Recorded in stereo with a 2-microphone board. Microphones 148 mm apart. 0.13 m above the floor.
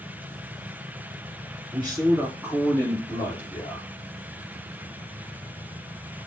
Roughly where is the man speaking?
Right.